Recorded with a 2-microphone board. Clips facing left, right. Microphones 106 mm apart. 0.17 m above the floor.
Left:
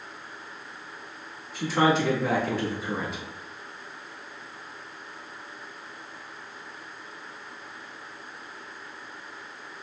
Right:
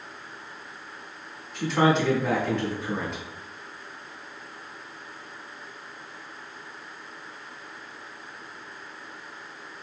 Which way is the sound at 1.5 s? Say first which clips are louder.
Right 1 dB; centre (ahead or behind).